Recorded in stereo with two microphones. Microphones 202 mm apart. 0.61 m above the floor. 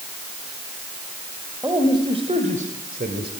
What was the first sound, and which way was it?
A man speaking, 15° right (ahead or behind).